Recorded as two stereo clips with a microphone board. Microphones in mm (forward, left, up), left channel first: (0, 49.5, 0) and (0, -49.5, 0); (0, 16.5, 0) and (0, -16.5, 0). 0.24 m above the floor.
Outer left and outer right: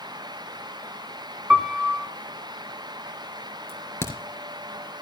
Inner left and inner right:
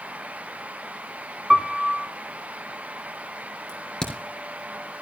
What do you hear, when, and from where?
1.5 s a piano: 10° right (ahead or behind), 1.1 m
3.7 s a crack: 25° left (ahead or behind), 3 m